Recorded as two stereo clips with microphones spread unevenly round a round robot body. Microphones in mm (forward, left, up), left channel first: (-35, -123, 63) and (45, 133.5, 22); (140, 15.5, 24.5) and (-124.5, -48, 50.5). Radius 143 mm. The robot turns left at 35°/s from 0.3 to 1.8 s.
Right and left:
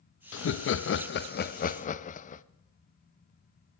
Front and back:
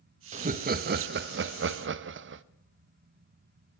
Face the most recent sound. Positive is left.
turn(degrees=-165)